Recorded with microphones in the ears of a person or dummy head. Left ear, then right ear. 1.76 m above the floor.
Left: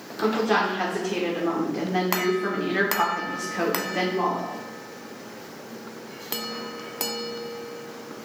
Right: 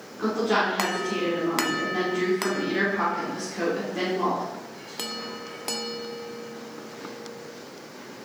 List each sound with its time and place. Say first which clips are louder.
0.2 s a woman speaking: left 1 dB; 35° left (ahead or behind), 1.3 m